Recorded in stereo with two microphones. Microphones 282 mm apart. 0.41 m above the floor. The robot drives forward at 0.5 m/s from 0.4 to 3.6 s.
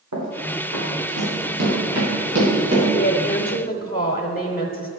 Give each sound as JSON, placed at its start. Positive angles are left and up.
{"t": 0.1, "sound": "running footsteps", "side_deg": -85, "distance_m": 4.0}
{"t": 2.9, "sound": "a woman speaking", "side_deg": 35, "distance_m": 0.9}